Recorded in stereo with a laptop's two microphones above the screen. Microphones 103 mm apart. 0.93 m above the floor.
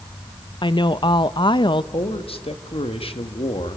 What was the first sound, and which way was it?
A woman speaking, 50° left (ahead or behind).